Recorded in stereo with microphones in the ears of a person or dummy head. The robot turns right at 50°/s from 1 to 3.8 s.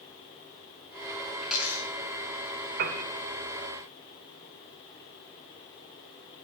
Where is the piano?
40° right (ahead or behind), 1.2 m; by 3.0 s 45° right (ahead or behind), 1.2 m.